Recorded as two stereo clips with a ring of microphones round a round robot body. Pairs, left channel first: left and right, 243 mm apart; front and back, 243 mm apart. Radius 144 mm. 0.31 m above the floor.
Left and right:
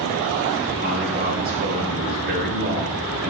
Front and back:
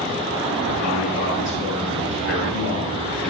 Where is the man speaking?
40° right, 6 m.